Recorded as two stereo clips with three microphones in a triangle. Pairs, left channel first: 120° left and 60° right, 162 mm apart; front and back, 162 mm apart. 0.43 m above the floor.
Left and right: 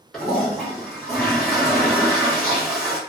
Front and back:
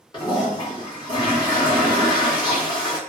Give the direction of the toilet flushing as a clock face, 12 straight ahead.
11 o'clock.